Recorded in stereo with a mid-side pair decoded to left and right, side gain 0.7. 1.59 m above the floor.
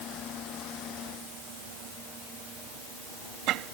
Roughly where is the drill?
No drill in this recording.